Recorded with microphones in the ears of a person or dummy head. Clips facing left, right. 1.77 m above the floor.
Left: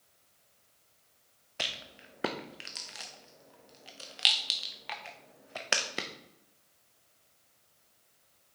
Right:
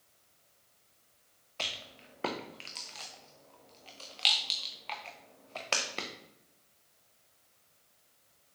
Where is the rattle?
15° left (ahead or behind), 0.5 m.